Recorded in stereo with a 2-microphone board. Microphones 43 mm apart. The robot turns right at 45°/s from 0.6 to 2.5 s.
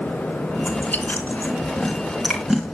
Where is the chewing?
60° left (ahead or behind), 3 m; by 2.8 s 10° right (ahead or behind), 3 m.